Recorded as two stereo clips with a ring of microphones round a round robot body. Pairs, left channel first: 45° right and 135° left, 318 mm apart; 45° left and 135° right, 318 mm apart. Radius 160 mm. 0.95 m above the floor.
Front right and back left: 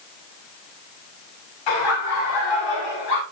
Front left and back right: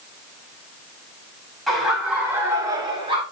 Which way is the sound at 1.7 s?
45° right.